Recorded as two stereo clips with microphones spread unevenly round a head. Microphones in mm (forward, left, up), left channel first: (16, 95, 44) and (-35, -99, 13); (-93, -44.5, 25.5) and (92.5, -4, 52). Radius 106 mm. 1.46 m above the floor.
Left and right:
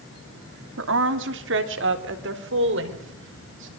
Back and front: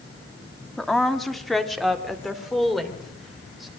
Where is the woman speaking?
75° right, 2.5 m.